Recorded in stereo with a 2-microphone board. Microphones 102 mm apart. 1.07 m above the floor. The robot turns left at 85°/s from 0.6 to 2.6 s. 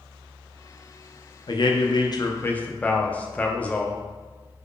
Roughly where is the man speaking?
Behind left.